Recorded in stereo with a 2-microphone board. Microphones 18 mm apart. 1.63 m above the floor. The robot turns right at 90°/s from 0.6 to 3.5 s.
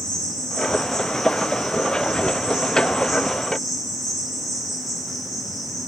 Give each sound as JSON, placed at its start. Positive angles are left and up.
{"t": 0.0, "sound": "an insect", "azimuth_deg": 105, "distance_m": 3.5}